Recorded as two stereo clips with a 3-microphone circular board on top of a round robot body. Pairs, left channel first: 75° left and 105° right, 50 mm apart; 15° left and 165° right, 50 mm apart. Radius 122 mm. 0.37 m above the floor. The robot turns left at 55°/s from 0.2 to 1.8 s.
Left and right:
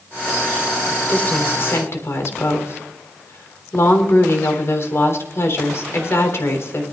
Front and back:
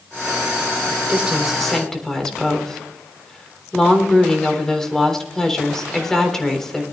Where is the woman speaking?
135° left, 3 m; by 6.8 s 95° left, 3 m.